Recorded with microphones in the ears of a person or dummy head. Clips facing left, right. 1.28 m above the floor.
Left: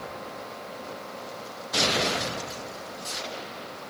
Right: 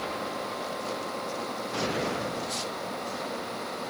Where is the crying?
No crying in this recording.